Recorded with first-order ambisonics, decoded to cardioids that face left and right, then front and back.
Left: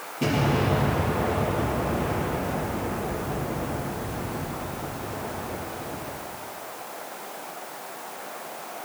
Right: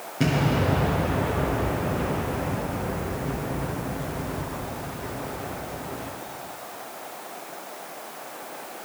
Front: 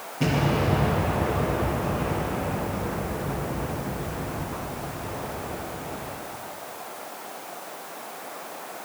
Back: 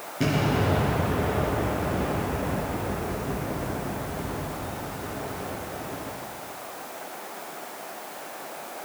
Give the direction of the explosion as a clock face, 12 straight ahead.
4 o'clock.